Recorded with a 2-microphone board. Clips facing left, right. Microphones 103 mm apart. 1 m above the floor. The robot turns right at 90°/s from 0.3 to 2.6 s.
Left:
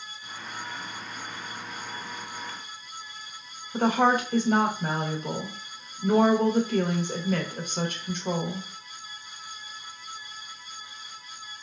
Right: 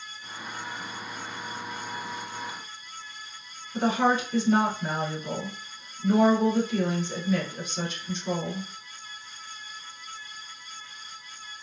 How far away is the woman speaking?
About 0.9 m.